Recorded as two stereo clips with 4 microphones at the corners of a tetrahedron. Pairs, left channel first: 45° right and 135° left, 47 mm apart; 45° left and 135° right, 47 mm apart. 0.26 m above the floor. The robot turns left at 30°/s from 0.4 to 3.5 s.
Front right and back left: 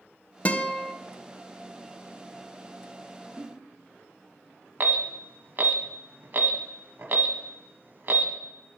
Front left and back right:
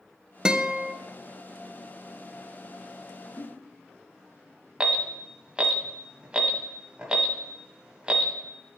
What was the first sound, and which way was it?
A guitar, 75° right.